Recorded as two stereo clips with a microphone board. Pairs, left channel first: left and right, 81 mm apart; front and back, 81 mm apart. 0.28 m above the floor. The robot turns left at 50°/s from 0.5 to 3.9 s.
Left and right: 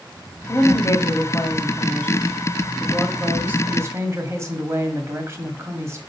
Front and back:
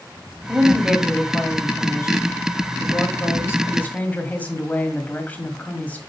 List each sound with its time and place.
0.5 s a woman speaking: 110° left, 1.8 m; by 6.0 s 60° right, 1.8 m